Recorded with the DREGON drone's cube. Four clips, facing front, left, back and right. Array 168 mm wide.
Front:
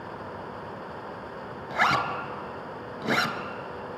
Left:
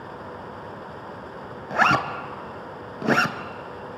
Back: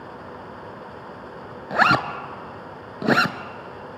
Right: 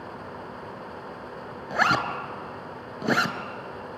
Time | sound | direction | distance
1.7 | a zipper | 165° left | 0.8 m